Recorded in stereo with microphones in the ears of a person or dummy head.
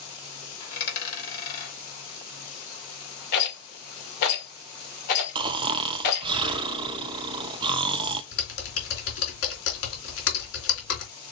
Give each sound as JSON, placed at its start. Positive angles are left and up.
{"t": 0.6, "sound": "a dropped coin", "side_deg": 50, "distance_m": 3.0}
{"t": 3.3, "sound": "a rattle", "side_deg": 60, "distance_m": 2.5}
{"t": 5.3, "sound": "snoring", "side_deg": -30, "distance_m": 0.7}
{"t": 8.3, "sound": "typing on a keyboard", "side_deg": 75, "distance_m": 2.0}